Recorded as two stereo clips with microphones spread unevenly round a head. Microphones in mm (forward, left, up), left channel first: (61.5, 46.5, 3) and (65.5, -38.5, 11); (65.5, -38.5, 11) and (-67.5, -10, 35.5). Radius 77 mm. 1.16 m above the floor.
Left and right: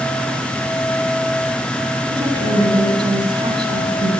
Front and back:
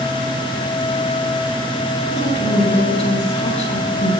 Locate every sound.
2.1 s a woman speaking: 55° right, 9.5 m